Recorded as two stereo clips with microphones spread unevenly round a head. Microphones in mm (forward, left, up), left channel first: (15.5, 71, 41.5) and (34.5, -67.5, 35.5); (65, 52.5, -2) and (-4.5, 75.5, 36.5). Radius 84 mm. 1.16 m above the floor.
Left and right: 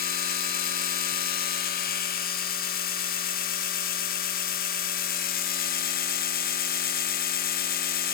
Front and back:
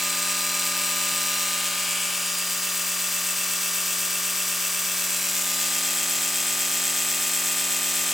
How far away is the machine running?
About 1.0 m.